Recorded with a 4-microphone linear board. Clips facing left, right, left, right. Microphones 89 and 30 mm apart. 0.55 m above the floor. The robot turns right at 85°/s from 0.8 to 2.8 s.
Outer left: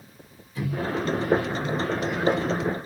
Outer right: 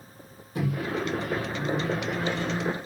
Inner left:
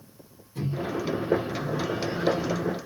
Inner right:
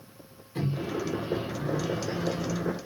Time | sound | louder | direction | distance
0.6 | a microwave | outer left 1 dB, inner left 1 dB | 110° right | 1.0 m